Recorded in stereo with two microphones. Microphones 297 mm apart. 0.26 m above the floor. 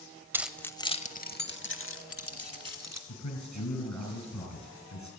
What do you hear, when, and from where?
0.3 s keys jangling: 10° right (ahead or behind), 0.6 m; by 3.0 s 55° left (ahead or behind), 1.4 m
3.1 s a man speaking: 75° left (ahead or behind), 4.5 m